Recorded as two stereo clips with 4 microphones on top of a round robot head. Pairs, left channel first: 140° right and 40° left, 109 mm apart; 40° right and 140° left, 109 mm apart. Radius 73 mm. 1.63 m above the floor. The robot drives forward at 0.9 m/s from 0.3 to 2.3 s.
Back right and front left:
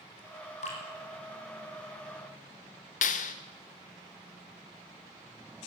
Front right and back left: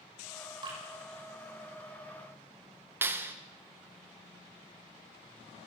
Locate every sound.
0.6 s dripping: 165° right, 6.5 m
3.0 s a clap: 150° right, 1.6 m